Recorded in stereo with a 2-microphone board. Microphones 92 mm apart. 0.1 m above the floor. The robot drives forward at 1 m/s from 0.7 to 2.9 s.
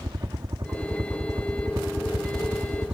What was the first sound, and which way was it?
A helicopter, 40° right (ahead or behind).